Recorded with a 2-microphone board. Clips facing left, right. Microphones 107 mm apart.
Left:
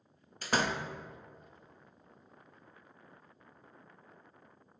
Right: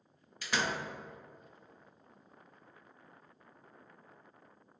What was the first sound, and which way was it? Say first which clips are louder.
A door slam: left 3 dB; 40° left (ahead or behind).